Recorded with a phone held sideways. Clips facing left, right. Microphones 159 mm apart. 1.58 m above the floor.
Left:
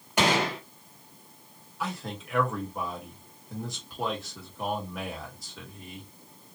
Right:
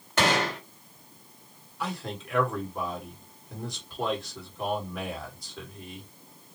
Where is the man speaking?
Centre (ahead or behind), 1.9 m.